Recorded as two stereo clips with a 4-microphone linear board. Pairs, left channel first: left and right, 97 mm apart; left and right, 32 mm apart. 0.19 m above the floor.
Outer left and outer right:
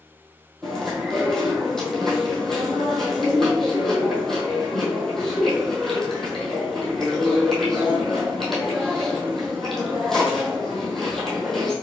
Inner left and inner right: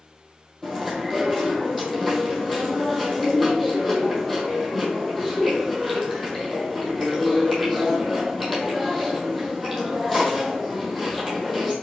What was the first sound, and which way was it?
Chewing, 5° left (ahead or behind).